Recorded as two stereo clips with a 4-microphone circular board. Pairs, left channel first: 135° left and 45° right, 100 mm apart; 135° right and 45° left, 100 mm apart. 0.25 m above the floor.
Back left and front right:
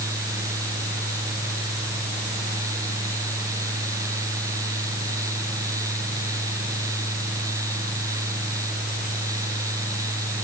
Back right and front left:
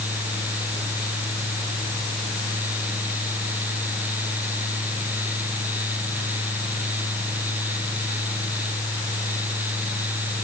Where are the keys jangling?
I don't hear keys jangling.